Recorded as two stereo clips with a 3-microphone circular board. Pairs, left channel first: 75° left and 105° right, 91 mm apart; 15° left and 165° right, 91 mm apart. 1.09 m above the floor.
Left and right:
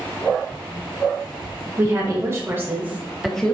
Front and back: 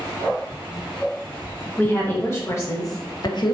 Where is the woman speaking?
50° right, 1.5 m; by 3.5 s straight ahead, 0.6 m.